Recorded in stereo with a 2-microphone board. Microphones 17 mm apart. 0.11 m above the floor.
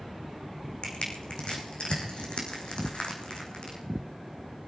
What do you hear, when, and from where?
0.8 s crushing: 65° left (ahead or behind), 4 m